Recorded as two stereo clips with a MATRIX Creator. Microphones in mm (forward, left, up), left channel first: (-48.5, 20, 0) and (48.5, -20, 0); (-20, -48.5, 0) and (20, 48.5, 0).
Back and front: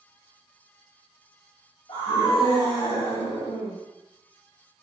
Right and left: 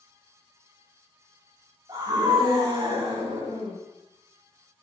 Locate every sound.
1.9 s a scream: 110° left, 5 m; by 3.8 s 95° left, 5 m